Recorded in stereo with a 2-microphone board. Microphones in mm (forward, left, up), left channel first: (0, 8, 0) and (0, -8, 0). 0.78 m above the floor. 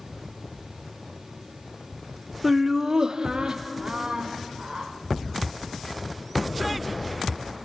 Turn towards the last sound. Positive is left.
turn(degrees=-60)  # may be behind; listen again after turning